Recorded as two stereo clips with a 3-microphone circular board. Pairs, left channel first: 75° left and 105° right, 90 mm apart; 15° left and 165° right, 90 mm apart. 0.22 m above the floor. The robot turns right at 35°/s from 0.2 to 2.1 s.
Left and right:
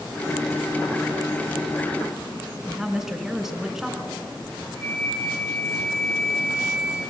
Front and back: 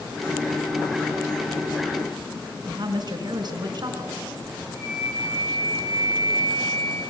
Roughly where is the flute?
Ahead left.